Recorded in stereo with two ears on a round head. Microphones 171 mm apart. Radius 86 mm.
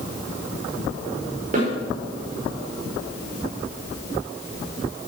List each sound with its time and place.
1.5 s a snare drum: 45° right (ahead or behind), 5.5 m